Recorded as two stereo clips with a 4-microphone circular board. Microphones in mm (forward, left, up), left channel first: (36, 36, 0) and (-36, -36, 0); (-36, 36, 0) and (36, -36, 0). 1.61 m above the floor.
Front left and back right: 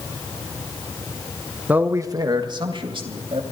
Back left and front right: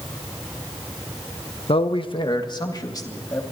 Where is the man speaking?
150° left, 1.0 m; by 3.4 s 170° right, 3 m.